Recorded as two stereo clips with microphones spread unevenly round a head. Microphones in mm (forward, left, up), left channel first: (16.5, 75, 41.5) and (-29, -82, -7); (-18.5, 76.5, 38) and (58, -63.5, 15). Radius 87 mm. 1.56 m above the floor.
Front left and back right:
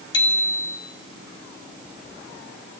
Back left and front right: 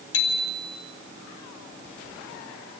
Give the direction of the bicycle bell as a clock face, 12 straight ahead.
7 o'clock.